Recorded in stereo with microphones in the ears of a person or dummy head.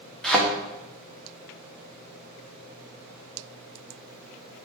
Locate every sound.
0.2 s a thud: centre (ahead or behind), 0.7 m